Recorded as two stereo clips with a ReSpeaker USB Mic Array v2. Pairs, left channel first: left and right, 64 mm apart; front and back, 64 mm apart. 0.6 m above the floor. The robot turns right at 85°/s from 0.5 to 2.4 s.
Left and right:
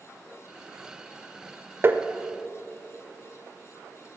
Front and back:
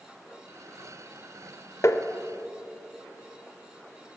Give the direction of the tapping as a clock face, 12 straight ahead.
1 o'clock.